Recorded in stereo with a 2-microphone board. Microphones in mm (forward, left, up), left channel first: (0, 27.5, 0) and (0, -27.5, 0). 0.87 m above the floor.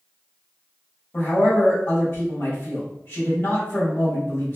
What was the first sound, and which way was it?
A man speaking, 65° left (ahead or behind).